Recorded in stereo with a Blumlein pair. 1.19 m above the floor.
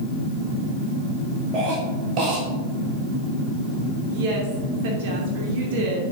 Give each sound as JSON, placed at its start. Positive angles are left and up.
{"t": 1.5, "sound": "a cough", "azimuth_deg": -40, "distance_m": 1.9}
{"t": 4.1, "sound": "a woman speaking", "azimuth_deg": -50, "distance_m": 2.5}